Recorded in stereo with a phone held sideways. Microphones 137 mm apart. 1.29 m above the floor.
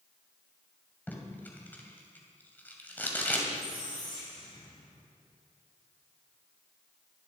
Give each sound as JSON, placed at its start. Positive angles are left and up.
{"t": 1.1, "sound": "tape being pulled", "side_deg": 15, "distance_m": 2.5}
{"t": 3.5, "sound": "a squeak", "side_deg": 70, "distance_m": 7.0}